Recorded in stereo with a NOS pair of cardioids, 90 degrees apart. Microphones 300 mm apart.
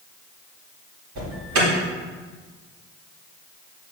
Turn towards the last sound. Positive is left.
turn(degrees=-70)